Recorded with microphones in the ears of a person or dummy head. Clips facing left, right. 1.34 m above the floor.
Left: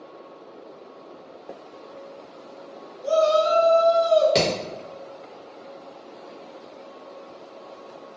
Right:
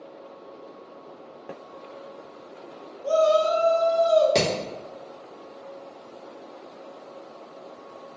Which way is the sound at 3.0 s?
65° left (ahead or behind).